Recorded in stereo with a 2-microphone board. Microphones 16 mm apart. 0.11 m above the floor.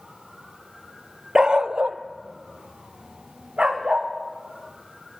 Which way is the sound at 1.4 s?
40° right (ahead or behind).